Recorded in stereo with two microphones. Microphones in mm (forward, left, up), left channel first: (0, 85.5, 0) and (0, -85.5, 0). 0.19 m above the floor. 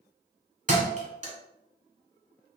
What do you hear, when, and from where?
0.7 s a thud: 45° right (ahead or behind), 0.9 m